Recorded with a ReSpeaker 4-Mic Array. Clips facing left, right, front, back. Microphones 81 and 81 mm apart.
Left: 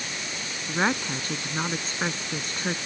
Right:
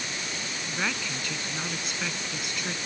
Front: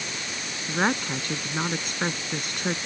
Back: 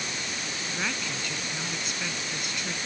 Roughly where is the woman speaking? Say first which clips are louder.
Left 7 dB, front 9 dB; ahead left.